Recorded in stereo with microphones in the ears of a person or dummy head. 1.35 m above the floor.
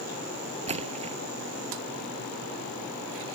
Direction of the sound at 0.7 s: 25° right (ahead or behind).